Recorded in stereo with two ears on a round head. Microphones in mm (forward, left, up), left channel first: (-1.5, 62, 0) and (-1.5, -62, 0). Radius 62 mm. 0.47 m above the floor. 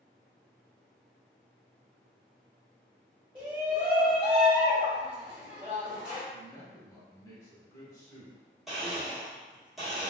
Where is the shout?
10° right (ahead or behind), 1.8 m.